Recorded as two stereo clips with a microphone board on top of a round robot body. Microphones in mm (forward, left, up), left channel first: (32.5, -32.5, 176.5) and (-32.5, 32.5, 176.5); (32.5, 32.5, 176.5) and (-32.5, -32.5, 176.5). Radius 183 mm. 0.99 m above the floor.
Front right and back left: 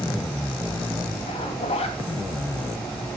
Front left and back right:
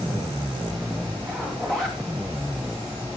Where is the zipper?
40° right, 3 m.